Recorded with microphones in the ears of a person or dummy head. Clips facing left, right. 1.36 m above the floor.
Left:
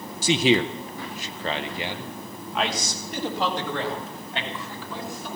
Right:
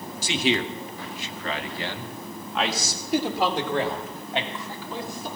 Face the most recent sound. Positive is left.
turn(degrees=-20)  # may be behind; listen again after turning